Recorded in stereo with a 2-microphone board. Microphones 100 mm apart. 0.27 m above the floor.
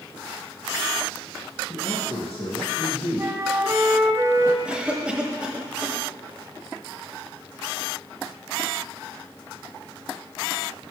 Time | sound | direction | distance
1.7 | a man speaking | 70° left (ahead or behind) | 3 m
3.2 | a flute | 30° right (ahead or behind) | 0.7 m
4.7 | a cough | 10° right (ahead or behind) | 1.0 m